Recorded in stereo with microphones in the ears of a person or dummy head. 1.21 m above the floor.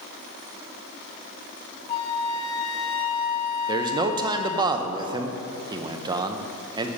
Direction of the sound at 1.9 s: 35° left (ahead or behind).